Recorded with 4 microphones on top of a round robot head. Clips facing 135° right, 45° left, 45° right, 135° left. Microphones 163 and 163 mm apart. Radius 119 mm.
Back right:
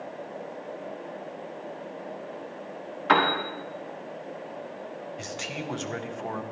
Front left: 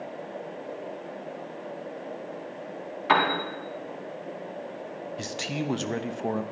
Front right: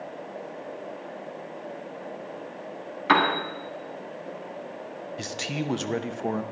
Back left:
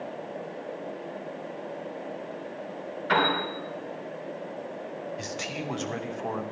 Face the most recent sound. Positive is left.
turn(degrees=0)